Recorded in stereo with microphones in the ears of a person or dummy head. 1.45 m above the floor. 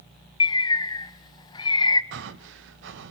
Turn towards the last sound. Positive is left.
turn(degrees=-70)  # may be behind; listen again after turning